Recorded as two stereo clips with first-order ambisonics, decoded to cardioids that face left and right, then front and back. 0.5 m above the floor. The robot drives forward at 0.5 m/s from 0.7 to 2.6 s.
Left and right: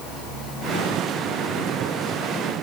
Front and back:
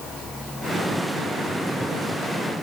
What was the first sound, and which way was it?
Only background noise.